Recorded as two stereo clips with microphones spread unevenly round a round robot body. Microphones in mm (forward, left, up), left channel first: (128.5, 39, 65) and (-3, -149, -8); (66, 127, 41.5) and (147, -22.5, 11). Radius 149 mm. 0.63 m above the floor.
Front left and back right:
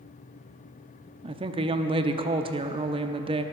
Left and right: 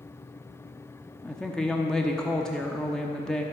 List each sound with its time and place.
1.2 s a woman speaking: 145° right, 0.7 m